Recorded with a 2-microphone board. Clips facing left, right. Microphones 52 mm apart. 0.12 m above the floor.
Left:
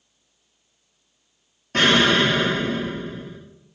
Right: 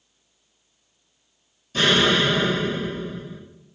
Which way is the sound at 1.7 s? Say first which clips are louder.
Left 2 dB; 55° left (ahead or behind).